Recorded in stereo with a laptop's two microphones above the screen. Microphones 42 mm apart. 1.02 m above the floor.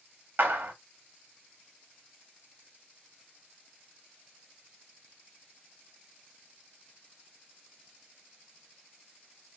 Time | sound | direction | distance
0.4 | a clap | 65° right (ahead or behind) | 1.7 m